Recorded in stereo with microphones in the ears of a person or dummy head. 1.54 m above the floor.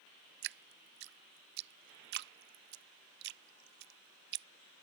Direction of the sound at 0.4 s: 65° right (ahead or behind).